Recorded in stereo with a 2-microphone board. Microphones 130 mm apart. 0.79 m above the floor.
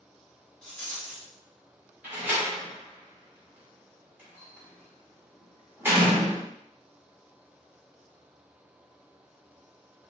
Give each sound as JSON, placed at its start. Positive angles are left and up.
{"t": 0.6, "sound": "a rattle", "side_deg": 5, "distance_m": 1.8}
{"t": 2.0, "sound": "a door slam", "side_deg": -15, "distance_m": 1.8}